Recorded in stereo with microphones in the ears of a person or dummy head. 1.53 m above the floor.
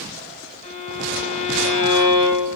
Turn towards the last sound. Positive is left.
turn(degrees=40)  # may be behind; listen again after turning